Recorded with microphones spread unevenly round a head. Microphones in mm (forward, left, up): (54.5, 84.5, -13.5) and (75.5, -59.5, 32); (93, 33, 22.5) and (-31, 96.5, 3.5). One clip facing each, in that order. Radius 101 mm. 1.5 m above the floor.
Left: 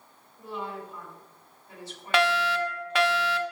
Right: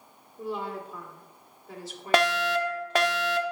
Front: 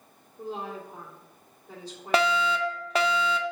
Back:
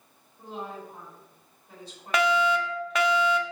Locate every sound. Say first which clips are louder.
0.4 s a woman speaking: right 3 dB, front 2 dB; 75° right, 2.0 m
2.1 s a fire alarm: right 1 dB, back 1 dB; 55° right, 0.5 m